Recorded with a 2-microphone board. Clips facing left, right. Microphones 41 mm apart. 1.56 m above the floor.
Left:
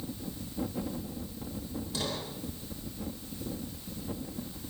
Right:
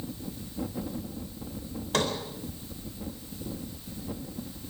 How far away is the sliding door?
About 4 m.